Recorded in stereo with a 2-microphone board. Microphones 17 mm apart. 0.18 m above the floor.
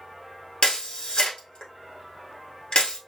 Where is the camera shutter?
75° left (ahead or behind), 1.5 m.